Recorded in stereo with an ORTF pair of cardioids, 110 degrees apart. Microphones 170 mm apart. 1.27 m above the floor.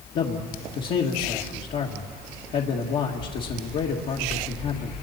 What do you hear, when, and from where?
0.1 s a man speaking: 60° left, 1.9 m